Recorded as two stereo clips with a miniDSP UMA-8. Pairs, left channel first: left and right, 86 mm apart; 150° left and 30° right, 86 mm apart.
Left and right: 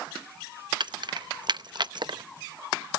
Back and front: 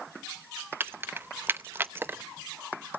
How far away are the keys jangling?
About 0.6 m.